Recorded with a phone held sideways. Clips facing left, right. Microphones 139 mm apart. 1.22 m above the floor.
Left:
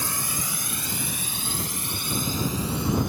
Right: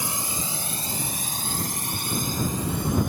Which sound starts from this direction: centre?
A drone, at 0.0 s.